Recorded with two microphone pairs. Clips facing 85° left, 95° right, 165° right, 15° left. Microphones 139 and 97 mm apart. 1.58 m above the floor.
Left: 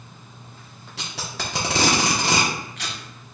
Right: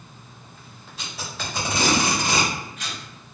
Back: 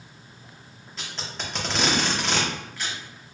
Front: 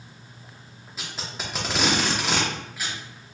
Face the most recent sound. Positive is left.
turn(degrees=95)